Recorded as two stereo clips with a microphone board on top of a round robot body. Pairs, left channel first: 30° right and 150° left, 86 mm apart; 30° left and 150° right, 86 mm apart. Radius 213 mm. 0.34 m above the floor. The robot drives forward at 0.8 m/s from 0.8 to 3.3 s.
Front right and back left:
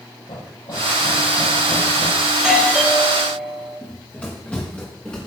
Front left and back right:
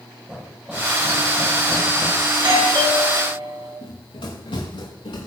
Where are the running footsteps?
40° left, 4.5 m; by 5.3 s 45° left, 5 m.